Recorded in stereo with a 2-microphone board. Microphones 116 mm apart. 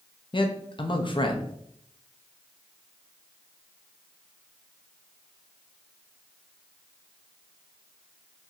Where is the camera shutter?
No camera shutter in this recording.